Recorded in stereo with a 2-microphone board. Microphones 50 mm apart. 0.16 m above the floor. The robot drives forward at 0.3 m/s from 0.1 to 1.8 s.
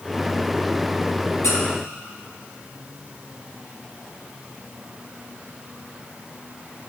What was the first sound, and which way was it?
A squeak, 75° left (ahead or behind).